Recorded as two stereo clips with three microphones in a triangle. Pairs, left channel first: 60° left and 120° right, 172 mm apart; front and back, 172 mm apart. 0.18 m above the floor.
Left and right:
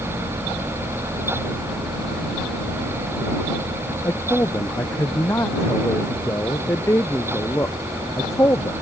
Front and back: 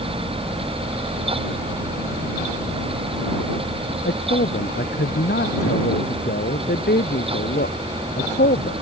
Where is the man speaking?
15° right.